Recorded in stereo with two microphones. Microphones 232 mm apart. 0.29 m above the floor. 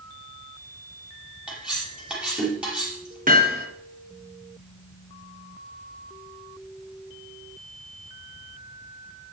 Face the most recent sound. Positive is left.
turn(degrees=-35)  # may be behind; listen again after turning